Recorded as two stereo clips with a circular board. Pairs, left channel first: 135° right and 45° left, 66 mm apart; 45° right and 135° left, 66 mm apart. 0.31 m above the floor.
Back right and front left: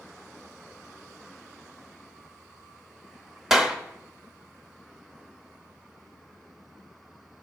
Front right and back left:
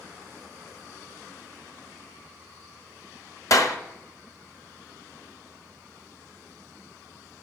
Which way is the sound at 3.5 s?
35° right.